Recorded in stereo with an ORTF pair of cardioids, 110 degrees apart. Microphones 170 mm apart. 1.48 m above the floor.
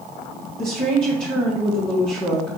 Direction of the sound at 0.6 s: 5° left.